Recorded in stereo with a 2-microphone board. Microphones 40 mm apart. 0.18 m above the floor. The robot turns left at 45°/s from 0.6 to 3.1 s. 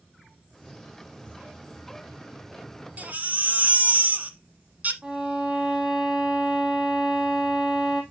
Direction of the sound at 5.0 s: 40° right (ahead or behind).